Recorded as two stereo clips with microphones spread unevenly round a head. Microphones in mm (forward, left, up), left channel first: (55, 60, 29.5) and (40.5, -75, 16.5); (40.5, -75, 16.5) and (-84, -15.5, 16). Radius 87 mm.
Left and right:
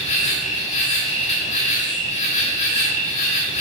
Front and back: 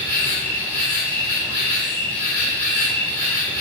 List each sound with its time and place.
0.0 s an insect: 50° left, 1.7 m